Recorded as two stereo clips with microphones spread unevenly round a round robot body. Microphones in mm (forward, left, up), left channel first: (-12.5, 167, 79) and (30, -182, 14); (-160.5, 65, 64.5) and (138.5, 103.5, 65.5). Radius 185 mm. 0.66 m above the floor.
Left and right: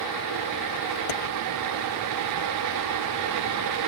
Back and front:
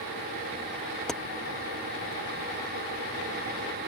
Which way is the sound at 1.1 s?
100° left.